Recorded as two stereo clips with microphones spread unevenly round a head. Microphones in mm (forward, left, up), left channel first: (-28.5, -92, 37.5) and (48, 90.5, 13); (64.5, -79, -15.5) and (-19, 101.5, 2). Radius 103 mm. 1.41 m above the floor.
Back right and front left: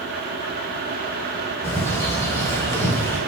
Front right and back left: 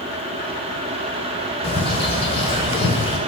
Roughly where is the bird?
Right.